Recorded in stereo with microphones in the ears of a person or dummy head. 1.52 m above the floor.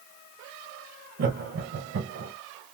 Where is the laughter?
55° right (ahead or behind), 1.2 m.